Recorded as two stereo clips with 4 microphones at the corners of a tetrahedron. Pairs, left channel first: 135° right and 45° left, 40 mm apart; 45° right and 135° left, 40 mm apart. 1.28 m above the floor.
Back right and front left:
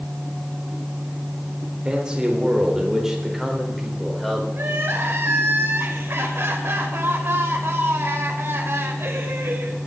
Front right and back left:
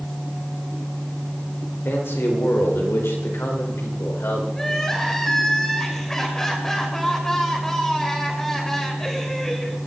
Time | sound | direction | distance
1.9 | a man speaking | 25° right | 4 m
4.5 | crying | 35° left | 3 m